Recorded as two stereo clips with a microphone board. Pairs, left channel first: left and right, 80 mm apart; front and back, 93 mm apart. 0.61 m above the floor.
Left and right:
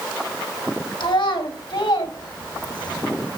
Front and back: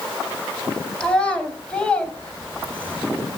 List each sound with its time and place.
1.0 s a child speaking: 80° left, 3.5 m; by 3.0 s 75° left, 2.5 m